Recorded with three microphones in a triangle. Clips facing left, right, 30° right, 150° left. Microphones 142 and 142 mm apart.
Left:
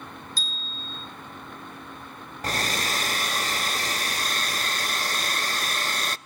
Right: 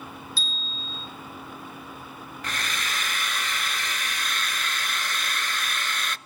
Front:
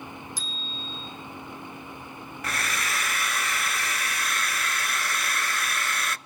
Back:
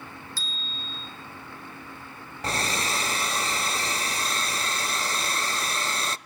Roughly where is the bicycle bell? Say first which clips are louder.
Right 1 dB, front 2 dB; ahead left.